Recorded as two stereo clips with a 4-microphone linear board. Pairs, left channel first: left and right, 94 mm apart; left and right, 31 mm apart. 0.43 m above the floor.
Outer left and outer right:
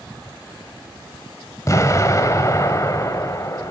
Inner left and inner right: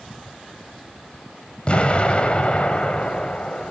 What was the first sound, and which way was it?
An explosion, 35° left (ahead or behind).